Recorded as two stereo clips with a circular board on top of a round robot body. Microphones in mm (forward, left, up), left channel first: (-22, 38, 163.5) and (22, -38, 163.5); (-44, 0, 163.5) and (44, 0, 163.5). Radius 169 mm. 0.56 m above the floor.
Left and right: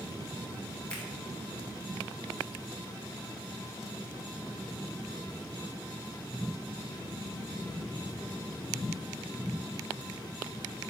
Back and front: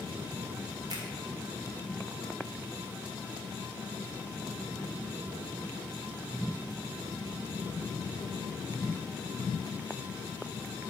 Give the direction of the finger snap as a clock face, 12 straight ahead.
11 o'clock.